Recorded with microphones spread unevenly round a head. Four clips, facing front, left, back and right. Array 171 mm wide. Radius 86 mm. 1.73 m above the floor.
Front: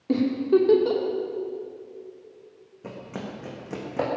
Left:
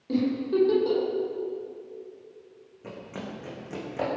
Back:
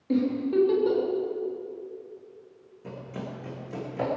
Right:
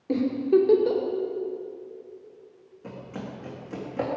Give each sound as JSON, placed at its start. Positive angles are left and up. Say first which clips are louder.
{"t": 0.1, "sound": "a giggle", "louder": "right 4 dB, front 4 dB", "azimuth_deg": -20, "distance_m": 2.5}
{"t": 2.8, "sound": "running footsteps", "louder": "right 1 dB, front 2 dB", "azimuth_deg": 25, "distance_m": 4.5}